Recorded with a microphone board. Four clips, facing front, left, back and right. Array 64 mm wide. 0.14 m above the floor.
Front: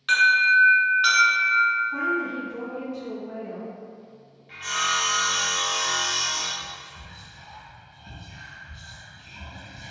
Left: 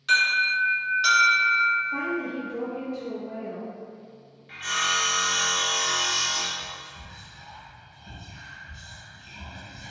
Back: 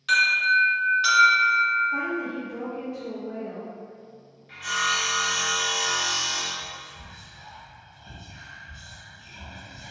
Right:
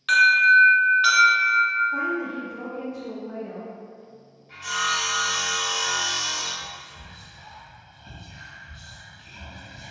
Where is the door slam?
No door slam in this recording.